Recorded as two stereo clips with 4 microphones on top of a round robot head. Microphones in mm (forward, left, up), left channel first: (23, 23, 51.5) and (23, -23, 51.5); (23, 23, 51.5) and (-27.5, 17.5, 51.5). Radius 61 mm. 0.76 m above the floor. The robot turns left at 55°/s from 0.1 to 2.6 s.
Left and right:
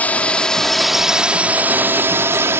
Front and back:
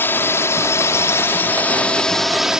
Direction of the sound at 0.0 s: 40° left.